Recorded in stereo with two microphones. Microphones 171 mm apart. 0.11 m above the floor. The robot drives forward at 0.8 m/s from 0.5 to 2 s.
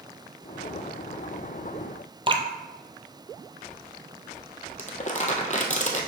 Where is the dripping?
30° right (ahead or behind), 0.6 m.